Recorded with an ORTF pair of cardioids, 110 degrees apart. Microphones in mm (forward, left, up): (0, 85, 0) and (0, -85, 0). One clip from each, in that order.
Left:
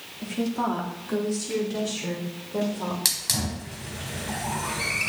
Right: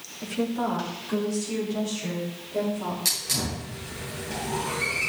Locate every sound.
0.2 s a woman speaking: 5° left, 3 m; by 3.0 s 45° left, 5.5 m
3.0 s a hiss: 65° left, 3.5 m